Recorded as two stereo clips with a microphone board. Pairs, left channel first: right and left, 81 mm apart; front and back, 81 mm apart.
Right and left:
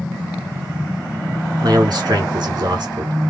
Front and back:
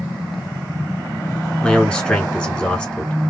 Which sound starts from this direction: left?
A man speaking, at 1.6 s.